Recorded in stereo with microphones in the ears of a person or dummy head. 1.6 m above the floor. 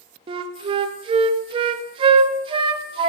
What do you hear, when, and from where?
0.3 s a flute: 35° right (ahead or behind), 0.6 m